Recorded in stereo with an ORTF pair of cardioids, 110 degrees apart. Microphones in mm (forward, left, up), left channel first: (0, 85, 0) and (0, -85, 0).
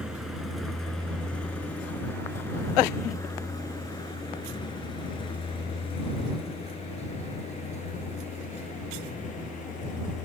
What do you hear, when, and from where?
0.0 s a vehicle: 5° right; by 10.3 s 45° left